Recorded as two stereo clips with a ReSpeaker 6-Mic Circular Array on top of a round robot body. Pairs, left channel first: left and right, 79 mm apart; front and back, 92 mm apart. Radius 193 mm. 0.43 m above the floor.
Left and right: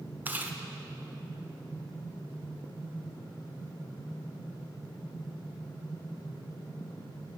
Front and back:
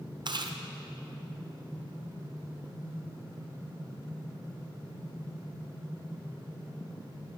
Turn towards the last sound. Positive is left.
turn(degrees=-155)